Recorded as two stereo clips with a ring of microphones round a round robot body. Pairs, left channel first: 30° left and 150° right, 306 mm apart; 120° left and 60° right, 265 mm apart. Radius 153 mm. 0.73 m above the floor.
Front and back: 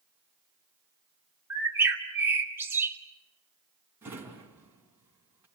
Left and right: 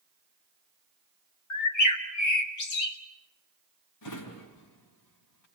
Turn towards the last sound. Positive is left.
turn(degrees=125)